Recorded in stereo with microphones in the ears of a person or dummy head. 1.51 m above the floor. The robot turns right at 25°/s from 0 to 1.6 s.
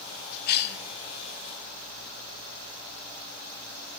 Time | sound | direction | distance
0.5 | a cough | 55° left (ahead or behind) | 1.2 m